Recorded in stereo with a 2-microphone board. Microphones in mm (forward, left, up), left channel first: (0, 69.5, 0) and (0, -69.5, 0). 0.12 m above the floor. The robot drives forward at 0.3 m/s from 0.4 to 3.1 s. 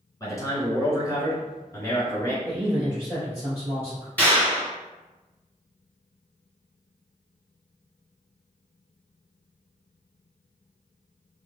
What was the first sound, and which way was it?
A man speaking, 25° left (ahead or behind).